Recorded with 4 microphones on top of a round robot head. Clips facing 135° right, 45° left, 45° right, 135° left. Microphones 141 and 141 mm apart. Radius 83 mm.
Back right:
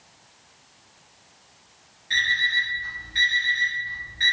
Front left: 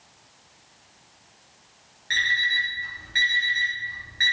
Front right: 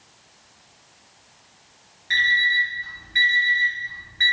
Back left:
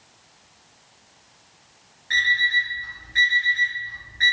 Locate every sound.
2.1 s an alarm clock: 10° left, 1.2 m